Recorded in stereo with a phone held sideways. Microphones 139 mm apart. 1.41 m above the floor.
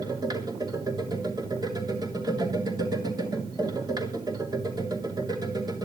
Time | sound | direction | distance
0.0 | a machine running | 30° right (ahead or behind) | 3 m